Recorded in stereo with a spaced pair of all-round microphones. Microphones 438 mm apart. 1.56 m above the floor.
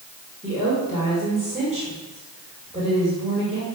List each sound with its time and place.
0.4 s a woman speaking: 15° right (ahead or behind), 6.5 m